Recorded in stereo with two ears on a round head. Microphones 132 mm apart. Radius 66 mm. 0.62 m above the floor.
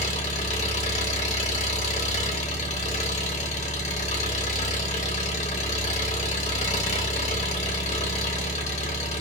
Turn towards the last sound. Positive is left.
turn(degrees=45)  # may be behind; listen again after turning